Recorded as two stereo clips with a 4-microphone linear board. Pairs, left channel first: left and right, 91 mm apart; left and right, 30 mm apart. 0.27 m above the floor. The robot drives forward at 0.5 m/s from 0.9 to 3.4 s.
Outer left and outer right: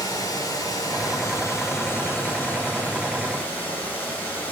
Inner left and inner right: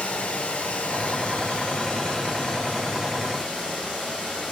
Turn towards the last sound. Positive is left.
turn(degrees=15)  # may be behind; listen again after turning